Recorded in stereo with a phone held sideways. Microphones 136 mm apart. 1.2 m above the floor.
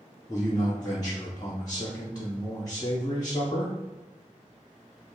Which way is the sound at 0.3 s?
30° left (ahead or behind).